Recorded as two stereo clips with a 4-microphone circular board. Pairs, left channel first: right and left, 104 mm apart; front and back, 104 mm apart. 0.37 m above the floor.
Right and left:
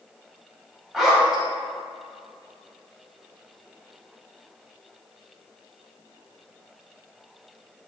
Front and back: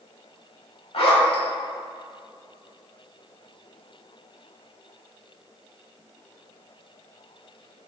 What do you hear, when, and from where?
0.9 s a zipper: straight ahead, 1.0 m